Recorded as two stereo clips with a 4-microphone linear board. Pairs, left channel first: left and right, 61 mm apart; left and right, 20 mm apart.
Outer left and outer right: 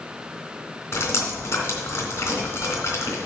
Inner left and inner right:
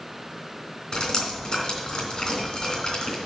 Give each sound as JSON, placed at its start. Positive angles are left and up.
{"t": 0.9, "sound": "dripping", "side_deg": 50, "distance_m": 3.0}